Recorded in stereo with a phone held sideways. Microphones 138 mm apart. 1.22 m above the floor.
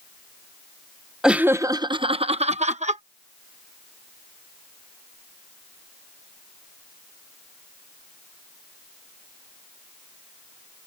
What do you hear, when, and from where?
1.2 s laughter: 5° right (ahead or behind); by 3.0 s 65° right (ahead or behind)